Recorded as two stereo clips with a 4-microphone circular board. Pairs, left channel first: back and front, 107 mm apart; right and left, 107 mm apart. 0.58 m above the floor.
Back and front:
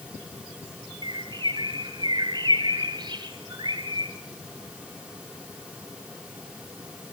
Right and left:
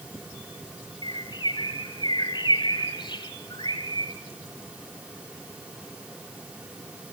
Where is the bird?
45° right, 1.7 m.